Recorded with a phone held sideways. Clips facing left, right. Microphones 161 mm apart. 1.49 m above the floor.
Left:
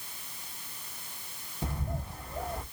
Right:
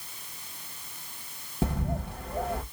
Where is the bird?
65° right (ahead or behind), 1.3 m.